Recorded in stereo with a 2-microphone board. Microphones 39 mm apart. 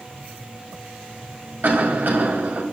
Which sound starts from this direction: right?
A cough, at 1.6 s.